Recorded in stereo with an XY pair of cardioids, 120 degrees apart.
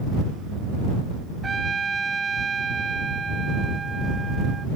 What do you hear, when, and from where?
1.4 s a trumpet: 25° right